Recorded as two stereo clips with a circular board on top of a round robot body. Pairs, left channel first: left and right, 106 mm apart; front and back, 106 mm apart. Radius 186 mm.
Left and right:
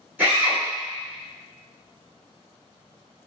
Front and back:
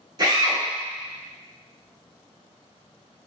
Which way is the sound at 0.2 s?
155° right.